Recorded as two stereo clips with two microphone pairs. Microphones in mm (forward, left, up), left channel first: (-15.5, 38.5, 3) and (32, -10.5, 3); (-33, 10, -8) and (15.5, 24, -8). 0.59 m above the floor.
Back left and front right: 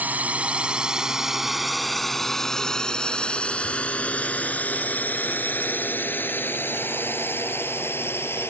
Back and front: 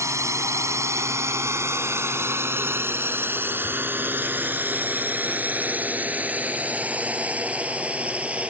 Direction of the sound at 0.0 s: 20° left.